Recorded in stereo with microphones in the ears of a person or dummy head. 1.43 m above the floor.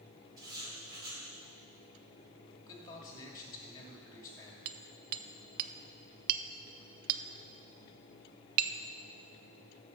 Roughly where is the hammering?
Right.